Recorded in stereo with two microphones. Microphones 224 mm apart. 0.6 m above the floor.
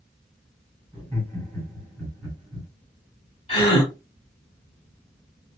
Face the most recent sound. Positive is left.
turn(degrees=30)  # may be behind; listen again after turning